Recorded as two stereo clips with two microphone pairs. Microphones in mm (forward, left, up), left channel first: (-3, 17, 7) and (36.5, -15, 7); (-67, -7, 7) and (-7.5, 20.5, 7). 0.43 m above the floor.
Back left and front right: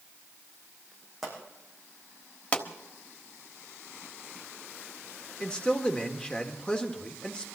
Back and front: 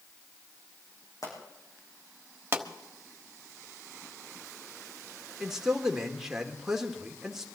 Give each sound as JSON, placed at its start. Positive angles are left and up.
{"t": 1.2, "sound": "a pop", "azimuth_deg": -130, "distance_m": 6.0}
{"t": 2.5, "sound": "a pop", "azimuth_deg": 80, "distance_m": 1.3}
{"t": 5.4, "sound": "a man speaking", "azimuth_deg": 100, "distance_m": 1.5}